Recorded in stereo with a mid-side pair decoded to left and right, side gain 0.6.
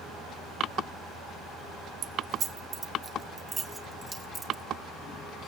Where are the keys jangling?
45° right, 1.0 m; by 4.6 s 20° right, 2.5 m.